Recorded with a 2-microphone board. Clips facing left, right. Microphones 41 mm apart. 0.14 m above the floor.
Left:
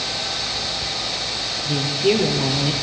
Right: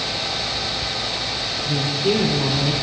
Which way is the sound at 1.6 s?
35° left (ahead or behind).